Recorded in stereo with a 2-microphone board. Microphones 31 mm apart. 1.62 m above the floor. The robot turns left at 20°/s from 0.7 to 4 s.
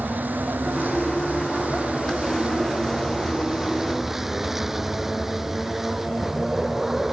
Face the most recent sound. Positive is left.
turn(degrees=-170)